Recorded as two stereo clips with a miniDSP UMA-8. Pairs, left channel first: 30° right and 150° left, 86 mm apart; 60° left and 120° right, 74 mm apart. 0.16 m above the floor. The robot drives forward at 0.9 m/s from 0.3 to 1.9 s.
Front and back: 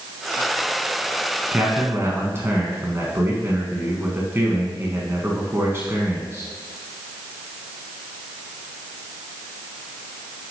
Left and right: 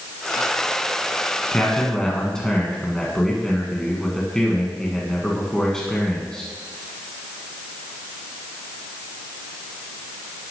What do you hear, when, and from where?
1.5 s a man speaking: 110° left, 1.4 m; by 6.5 s 135° left, 1.5 m